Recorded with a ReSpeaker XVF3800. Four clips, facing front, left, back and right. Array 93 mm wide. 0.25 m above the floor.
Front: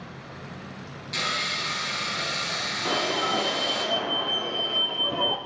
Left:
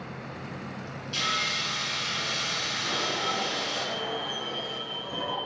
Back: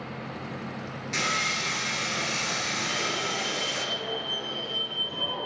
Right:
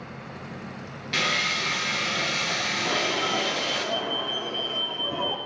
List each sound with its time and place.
1.1 s sawing: 115° right, 5.5 m
2.9 s an alarm: 35° right, 7.5 m